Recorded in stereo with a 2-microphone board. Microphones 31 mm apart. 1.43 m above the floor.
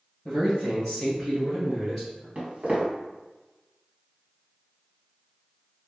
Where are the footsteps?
40° right (ahead or behind), 1.8 m.